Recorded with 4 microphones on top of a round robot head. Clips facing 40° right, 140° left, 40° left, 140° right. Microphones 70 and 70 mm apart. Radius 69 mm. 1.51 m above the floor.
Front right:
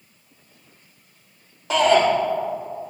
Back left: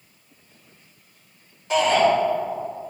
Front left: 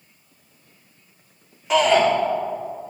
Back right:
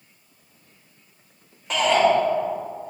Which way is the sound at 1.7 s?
45° right.